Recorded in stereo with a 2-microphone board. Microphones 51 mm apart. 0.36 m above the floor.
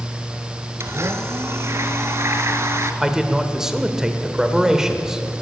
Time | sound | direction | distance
0.8 | a blender | 60° right (ahead or behind) | 1.0 m
3.0 | a man speaking | 10° right (ahead or behind) | 1.1 m